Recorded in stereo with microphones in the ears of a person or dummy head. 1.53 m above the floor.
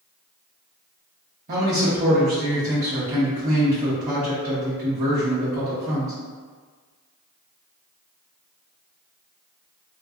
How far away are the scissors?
I don't hear scissors.